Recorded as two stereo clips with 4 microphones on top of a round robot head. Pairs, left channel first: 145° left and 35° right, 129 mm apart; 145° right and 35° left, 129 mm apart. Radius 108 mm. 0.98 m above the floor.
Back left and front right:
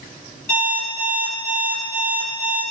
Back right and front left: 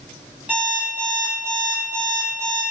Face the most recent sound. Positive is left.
turn(degrees=115)